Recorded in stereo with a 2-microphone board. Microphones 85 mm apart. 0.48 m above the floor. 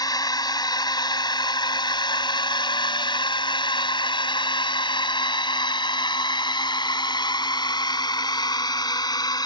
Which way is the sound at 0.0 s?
50° left (ahead or behind).